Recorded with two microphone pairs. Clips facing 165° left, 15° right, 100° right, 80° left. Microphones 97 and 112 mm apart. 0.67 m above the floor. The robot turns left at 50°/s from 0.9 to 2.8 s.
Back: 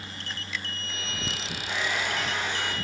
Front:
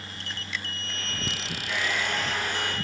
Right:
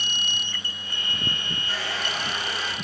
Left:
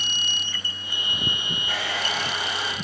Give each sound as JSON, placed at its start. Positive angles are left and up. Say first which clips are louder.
{"t": 1.7, "sound": "a hair dryer", "louder": "even, left 2 dB", "azimuth_deg": 110, "distance_m": 1.7}